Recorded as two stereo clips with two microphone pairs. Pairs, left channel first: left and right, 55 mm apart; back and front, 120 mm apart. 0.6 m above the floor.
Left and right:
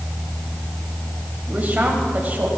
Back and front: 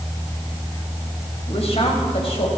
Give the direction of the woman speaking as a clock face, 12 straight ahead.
5 o'clock.